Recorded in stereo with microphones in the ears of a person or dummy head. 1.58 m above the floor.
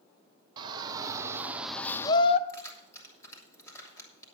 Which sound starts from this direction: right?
A shout, at 0.6 s.